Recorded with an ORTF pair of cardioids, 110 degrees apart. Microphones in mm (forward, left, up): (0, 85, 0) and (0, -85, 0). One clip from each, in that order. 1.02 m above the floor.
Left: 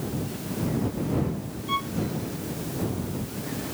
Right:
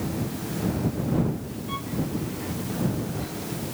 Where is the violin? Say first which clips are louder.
Left 7 dB; 45° left.